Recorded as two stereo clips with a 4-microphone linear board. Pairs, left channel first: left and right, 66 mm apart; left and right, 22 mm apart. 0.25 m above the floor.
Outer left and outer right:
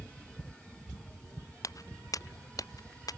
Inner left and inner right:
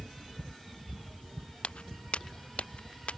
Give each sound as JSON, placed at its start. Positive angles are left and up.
{"t": 1.6, "sound": "footsteps", "side_deg": 55}